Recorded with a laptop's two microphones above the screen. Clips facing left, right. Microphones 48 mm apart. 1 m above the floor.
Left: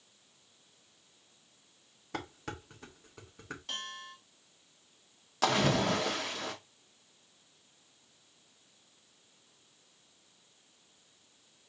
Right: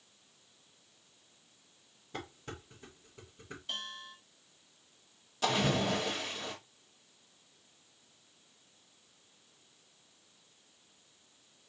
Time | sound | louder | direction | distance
2.1 | dishes clattering | left 3 dB | 85° left | 1.2 m
3.7 | a bell | right 1 dB | 75° left (ahead or behind) | 3.5 m
5.4 | a splash | left 2 dB | 85° left | 1.5 m